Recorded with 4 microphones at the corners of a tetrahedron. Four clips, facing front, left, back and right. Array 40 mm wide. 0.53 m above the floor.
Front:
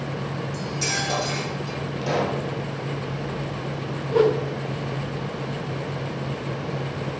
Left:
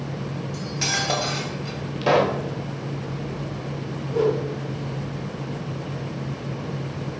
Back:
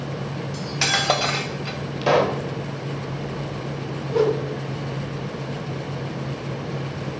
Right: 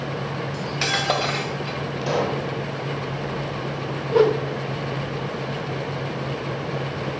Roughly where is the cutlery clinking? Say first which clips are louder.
Right 2 dB, back 6 dB; behind right.